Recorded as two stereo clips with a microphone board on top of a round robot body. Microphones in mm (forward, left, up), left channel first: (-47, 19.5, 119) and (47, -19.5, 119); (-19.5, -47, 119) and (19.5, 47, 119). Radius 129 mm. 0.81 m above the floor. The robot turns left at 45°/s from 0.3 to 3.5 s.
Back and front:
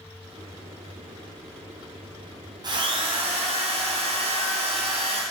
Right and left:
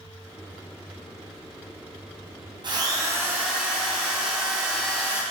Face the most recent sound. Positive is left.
turn(degrees=-15)